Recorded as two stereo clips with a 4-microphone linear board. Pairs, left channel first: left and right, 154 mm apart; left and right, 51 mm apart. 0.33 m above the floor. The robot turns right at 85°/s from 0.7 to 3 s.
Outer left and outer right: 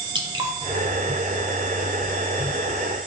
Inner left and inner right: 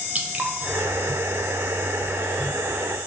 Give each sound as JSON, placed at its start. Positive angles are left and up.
{"t": 0.1, "sound": "dripping", "side_deg": -30, "distance_m": 0.6}